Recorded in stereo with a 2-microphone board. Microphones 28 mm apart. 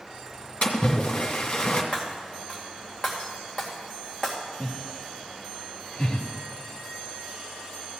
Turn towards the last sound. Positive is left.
turn(degrees=30)  # may be behind; listen again after turning